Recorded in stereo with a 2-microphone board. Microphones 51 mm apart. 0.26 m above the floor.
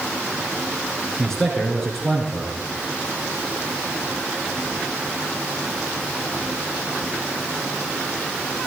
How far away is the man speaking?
About 3 m.